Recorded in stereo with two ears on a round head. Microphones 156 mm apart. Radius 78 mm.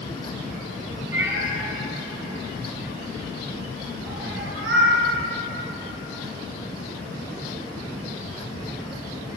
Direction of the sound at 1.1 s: 15° right (ahead or behind).